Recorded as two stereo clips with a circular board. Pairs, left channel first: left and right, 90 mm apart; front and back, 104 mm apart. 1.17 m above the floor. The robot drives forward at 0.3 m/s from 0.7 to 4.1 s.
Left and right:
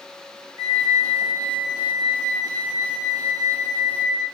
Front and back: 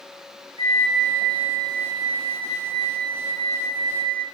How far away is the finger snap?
I don't hear a finger snap.